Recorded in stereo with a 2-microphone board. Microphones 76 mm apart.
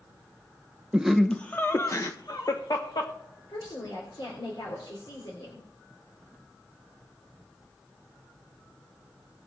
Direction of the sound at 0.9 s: 15° right (ahead or behind).